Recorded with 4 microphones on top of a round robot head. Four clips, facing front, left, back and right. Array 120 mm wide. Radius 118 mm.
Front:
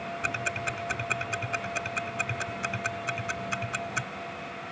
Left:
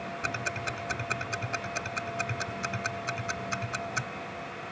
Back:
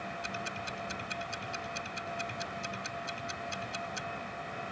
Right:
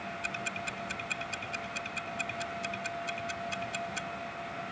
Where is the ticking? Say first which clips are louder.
Left 4 dB, front 6 dB; 40° left.